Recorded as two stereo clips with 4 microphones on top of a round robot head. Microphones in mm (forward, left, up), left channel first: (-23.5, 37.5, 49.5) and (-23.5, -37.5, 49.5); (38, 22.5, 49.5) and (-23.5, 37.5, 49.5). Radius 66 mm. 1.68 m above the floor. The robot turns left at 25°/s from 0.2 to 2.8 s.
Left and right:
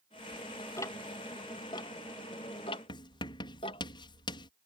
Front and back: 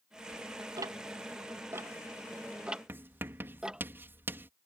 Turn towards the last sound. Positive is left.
turn(degrees=110)